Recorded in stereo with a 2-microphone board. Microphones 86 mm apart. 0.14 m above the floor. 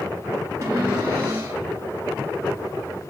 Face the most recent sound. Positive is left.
turn(degrees=-40)  # may be behind; listen again after turning